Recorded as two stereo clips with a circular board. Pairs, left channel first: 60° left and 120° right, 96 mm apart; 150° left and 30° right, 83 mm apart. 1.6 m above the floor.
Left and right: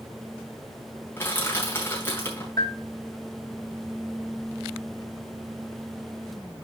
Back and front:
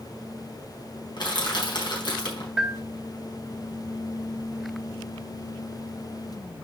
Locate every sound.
1.2 s crushing: 125° left, 4.5 m
2.6 s a bell: 45° left, 1.6 m